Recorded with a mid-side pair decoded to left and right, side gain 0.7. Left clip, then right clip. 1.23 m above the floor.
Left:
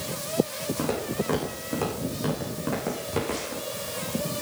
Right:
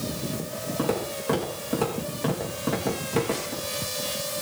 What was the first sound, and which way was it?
Footsteps, straight ahead.